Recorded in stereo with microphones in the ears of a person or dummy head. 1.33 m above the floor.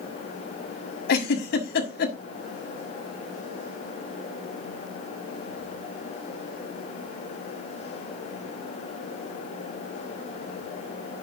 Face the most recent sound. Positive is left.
turn(degrees=65)  # may be behind; listen again after turning